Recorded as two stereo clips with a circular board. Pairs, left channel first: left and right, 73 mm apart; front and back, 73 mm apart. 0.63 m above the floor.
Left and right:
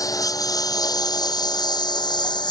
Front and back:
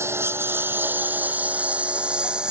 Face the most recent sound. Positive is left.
turn(degrees=100)